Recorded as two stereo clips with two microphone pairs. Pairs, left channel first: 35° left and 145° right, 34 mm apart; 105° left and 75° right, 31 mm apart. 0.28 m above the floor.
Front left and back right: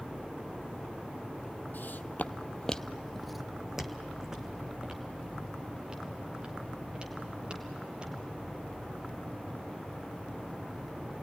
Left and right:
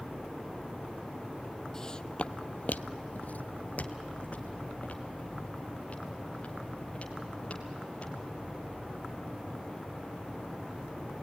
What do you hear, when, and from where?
1.7 s footsteps: 35° left, 0.6 m; by 8.2 s 160° left, 3.5 m